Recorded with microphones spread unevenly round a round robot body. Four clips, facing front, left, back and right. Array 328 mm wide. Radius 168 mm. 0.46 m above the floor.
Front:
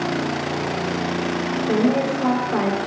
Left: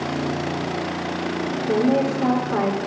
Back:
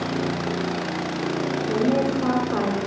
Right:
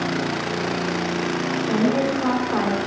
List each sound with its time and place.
1.7 s a woman speaking: 80° left, 3 m